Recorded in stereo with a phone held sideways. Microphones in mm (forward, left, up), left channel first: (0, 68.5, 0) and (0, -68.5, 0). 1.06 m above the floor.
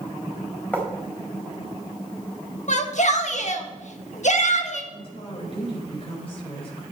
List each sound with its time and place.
0.7 s writing: 10° left (ahead or behind), 3.5 m
2.7 s a shout: 60° left (ahead or behind), 1.5 m
4.9 s a woman speaking: 45° left (ahead or behind), 4 m